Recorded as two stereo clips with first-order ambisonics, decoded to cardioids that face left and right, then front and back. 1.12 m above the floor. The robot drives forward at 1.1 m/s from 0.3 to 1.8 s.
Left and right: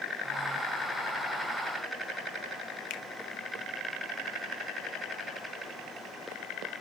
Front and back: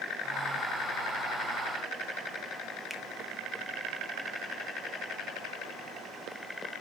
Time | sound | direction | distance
2.9 | a finger snap | 90° left | 0.6 m